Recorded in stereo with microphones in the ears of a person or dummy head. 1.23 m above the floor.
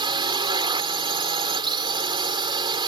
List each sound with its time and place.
0.0 s a drone: 25° right (ahead or behind)